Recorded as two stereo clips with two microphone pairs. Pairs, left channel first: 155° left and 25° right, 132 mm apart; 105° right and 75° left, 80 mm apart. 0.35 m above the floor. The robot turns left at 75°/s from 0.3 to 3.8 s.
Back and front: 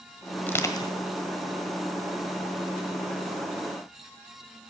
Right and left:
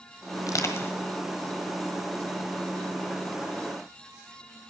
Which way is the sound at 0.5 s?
130° right.